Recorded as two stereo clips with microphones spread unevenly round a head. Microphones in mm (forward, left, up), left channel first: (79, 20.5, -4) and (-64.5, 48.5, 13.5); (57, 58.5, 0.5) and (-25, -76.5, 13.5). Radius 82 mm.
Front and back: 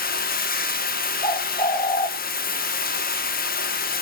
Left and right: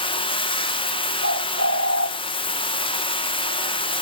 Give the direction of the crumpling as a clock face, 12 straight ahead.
No crumpling in this recording.